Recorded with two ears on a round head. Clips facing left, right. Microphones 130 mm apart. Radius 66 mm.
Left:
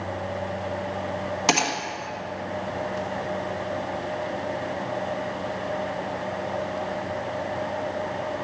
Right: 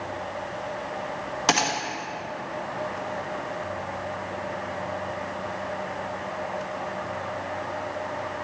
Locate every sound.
1.5 s a gunshot: 5° left (ahead or behind), 1.6 m